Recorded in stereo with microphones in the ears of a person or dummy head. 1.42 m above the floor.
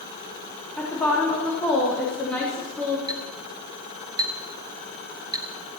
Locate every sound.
0.8 s a woman speaking: 10° left (ahead or behind), 4 m
3.1 s a clink: 20° right (ahead or behind), 1.1 m